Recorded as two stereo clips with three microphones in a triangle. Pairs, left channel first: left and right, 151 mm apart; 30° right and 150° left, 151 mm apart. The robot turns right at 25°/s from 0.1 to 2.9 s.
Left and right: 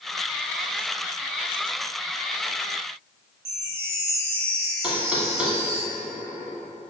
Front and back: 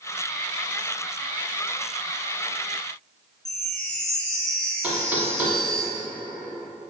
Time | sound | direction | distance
3.5 | a chime | 55° left | 0.8 m
4.8 | knocking | 155° right | 1.0 m